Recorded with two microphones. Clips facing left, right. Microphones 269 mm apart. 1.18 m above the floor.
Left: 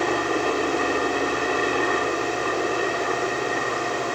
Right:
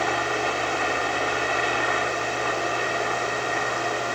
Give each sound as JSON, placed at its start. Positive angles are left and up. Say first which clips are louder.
{"t": 0.0, "sound": "a helicopter", "louder": "left 4 dB", "side_deg": 50}